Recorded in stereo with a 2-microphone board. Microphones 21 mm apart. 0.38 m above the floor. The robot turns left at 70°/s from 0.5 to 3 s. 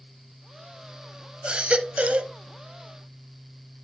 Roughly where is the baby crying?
Ahead right.